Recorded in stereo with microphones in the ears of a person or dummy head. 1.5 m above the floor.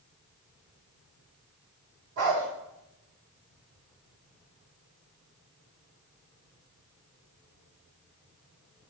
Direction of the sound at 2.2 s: 60° right (ahead or behind).